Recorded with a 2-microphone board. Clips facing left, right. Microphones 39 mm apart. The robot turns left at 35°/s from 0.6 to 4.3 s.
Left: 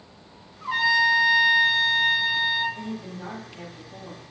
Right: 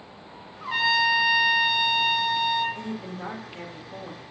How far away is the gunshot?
I don't hear a gunshot.